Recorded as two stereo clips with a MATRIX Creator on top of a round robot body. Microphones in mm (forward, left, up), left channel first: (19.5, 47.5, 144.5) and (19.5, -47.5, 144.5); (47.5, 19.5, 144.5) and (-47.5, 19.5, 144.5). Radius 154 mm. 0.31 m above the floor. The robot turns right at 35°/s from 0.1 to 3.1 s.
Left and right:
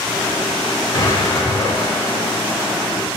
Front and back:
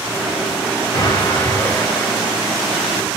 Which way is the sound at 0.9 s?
35° left.